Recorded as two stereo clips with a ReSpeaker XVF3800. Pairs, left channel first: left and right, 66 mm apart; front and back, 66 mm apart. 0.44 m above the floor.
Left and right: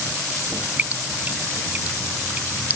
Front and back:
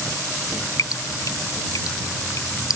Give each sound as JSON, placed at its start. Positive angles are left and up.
{"t": 0.8, "sound": "dripping", "azimuth_deg": -25}